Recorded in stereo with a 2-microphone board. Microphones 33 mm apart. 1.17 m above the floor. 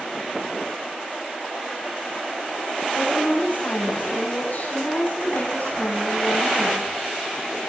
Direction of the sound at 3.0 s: 60° left (ahead or behind).